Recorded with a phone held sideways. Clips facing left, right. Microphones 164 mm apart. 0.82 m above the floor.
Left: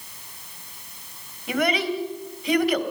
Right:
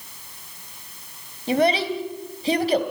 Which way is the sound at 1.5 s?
30° right (ahead or behind).